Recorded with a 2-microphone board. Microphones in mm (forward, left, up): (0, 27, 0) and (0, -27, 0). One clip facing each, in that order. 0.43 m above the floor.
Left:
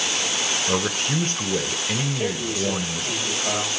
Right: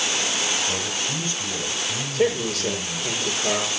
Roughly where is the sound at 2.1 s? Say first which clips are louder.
Right 4 dB; right.